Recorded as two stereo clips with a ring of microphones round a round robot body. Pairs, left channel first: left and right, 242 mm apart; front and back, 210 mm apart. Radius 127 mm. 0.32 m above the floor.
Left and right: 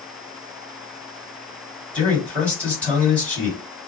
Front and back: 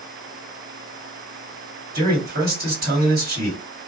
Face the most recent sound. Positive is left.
turn(degrees=170)